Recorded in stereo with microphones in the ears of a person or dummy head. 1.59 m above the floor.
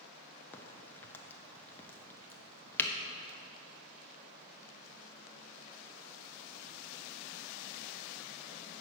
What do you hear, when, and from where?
0.5 s a crack: 10° left (ahead or behind), 0.7 m